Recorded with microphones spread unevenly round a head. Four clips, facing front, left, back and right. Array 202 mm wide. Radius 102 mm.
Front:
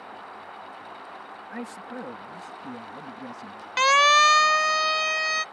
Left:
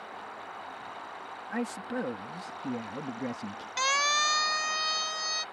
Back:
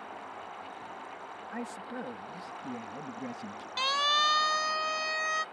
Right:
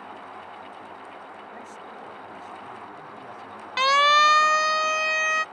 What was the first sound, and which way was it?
A man speaking, 75° left.